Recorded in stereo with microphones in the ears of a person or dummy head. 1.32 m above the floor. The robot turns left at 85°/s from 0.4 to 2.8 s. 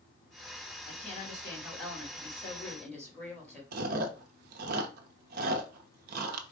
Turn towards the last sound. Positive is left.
turn(degrees=-55)  # may be behind; listen again after turning